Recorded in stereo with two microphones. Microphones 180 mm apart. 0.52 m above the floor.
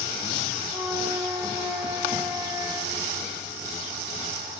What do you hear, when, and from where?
0.7 s a flute: 15° right (ahead or behind), 2 m